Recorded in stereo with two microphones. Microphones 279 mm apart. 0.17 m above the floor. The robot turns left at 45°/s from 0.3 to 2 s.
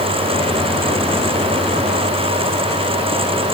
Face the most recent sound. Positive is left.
No sound to turn to.